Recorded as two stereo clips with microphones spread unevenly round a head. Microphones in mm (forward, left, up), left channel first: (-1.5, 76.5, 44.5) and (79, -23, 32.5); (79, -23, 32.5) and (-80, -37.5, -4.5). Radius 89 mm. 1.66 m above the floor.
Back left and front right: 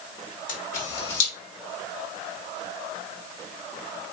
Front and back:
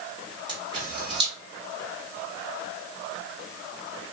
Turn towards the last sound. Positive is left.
turn(degrees=115)